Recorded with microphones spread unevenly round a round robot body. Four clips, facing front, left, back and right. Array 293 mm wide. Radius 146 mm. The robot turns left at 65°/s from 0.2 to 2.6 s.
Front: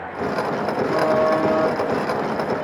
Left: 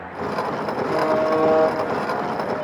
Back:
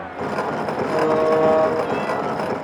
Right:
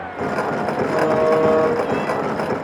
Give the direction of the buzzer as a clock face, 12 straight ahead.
7 o'clock.